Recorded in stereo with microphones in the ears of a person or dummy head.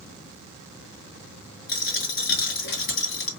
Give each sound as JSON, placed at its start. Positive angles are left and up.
{"t": 1.7, "sound": "a dropped coin", "side_deg": 60, "distance_m": 2.5}